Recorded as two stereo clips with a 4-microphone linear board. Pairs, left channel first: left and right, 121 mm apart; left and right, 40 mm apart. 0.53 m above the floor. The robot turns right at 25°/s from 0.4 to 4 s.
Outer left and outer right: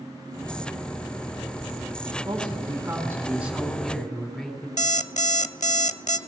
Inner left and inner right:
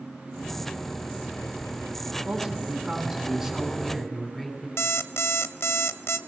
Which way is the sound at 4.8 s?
75° left (ahead or behind).